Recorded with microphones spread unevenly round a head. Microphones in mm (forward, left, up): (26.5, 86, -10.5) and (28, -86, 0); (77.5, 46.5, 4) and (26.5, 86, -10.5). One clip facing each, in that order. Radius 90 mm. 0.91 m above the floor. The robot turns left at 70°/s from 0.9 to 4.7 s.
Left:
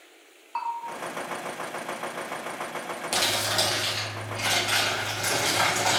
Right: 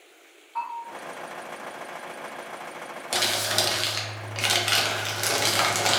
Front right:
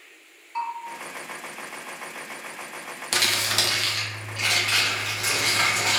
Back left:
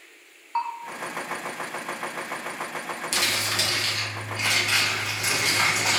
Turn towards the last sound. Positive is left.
turn(degrees=-110)